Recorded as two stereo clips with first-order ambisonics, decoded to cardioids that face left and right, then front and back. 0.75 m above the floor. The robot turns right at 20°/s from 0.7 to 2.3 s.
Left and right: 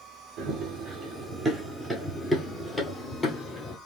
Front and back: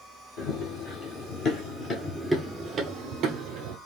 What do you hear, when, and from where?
0.4 s running footsteps: 40° right, 1.5 m; by 3.8 s 160° left, 1.2 m